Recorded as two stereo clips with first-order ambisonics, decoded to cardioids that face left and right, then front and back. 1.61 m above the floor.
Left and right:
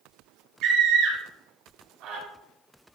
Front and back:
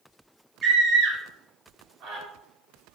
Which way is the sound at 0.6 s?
130° right.